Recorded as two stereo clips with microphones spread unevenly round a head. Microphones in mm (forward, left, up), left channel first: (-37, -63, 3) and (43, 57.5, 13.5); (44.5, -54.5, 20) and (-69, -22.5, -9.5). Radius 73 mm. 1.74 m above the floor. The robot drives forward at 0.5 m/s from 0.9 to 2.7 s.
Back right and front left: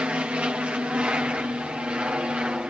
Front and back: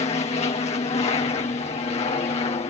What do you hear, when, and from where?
0.0 s an aircraft: 25° right